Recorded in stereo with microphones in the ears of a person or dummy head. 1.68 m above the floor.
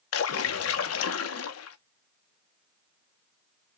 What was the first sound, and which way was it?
A splash, 80° left.